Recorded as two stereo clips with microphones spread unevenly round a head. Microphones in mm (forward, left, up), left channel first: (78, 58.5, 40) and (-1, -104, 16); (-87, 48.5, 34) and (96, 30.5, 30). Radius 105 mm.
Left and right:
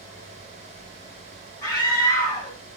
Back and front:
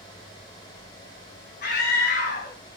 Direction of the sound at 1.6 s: 140° left.